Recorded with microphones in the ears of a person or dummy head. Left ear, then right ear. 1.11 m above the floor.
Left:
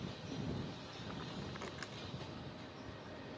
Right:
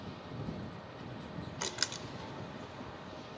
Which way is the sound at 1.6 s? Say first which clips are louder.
Right 10 dB; 80° right.